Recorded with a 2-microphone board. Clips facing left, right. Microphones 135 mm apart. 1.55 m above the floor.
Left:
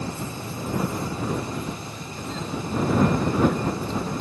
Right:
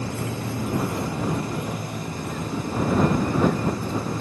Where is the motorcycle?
85° right; by 4.2 s 45° right (ahead or behind).